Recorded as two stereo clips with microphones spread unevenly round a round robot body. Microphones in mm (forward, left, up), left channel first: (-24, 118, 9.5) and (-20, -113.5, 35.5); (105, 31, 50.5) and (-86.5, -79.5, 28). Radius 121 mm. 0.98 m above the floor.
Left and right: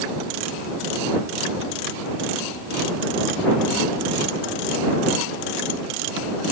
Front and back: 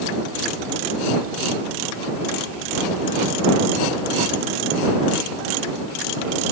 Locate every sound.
Only background noise.